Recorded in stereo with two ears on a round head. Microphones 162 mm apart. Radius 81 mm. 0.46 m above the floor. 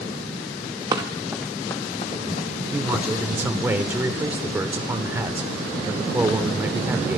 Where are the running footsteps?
20° right (ahead or behind), 1.2 m; by 2.5 s 45° left (ahead or behind), 1.5 m.